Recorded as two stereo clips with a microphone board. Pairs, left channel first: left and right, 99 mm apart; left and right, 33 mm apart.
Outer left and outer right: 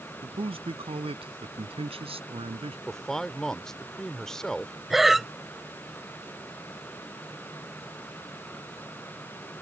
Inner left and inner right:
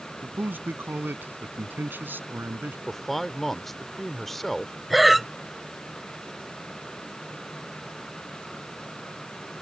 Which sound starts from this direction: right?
A man speaking, at 0.2 s.